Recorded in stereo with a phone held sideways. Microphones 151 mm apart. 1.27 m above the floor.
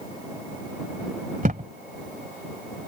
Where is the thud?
55° right (ahead or behind).